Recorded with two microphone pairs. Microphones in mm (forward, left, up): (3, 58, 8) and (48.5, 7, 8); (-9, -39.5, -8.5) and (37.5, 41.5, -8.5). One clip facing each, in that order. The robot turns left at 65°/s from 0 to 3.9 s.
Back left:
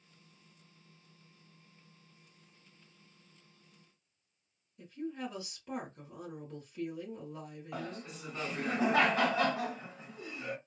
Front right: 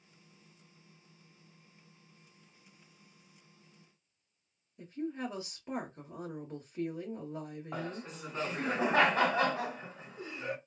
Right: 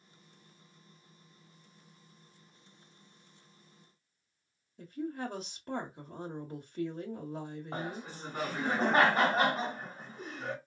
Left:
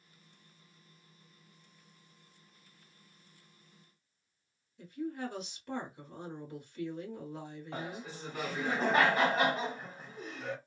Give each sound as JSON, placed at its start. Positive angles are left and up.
{"t": 4.8, "sound": "a woman speaking", "azimuth_deg": -100, "distance_m": 1.0}
{"t": 7.7, "sound": "laughter", "azimuth_deg": -80, "distance_m": 1.5}